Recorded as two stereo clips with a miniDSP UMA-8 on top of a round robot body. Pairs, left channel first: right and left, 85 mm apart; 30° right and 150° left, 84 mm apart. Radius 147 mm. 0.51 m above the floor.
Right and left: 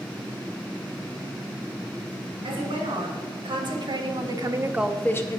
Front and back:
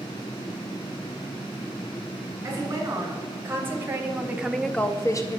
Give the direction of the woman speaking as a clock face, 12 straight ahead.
9 o'clock.